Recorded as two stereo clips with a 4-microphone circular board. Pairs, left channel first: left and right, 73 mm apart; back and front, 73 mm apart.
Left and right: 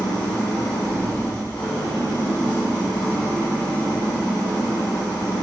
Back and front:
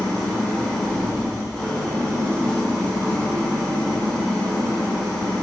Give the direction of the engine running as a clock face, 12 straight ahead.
9 o'clock.